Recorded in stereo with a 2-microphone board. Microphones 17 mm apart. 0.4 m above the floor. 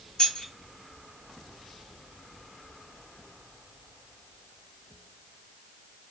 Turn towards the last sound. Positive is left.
turn(degrees=45)  # may be behind; listen again after turning